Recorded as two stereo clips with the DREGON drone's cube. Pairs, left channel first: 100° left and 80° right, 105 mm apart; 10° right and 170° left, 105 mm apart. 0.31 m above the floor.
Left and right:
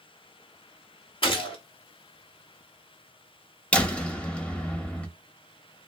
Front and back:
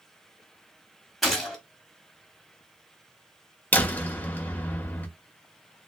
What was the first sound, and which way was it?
A gunshot, 80° left.